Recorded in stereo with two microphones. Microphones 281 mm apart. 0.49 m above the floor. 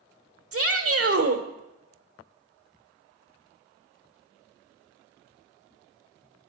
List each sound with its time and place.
0.5 s a shout: 55° right (ahead or behind), 1.2 m